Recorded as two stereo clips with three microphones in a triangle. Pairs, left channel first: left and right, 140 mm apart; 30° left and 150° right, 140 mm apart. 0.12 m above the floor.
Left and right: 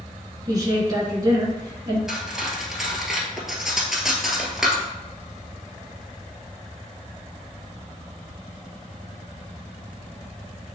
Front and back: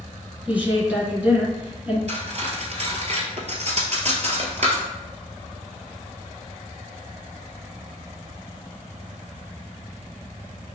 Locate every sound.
0.5 s a woman speaking: 85° right, 1.7 m
2.1 s cutlery clinking: 175° right, 1.3 m